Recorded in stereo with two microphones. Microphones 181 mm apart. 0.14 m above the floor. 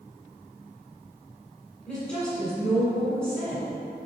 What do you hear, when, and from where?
1.9 s a woman speaking: 5° left (ahead or behind), 1.7 m